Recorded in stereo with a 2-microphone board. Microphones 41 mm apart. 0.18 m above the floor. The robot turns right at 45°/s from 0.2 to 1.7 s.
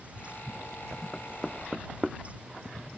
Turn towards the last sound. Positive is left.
turn(degrees=-10)  # may be behind; listen again after turning